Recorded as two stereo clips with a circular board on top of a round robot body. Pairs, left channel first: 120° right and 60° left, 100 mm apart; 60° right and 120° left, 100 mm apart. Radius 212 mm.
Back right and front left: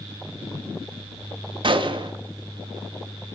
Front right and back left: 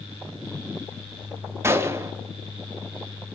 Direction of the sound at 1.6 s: 60° left.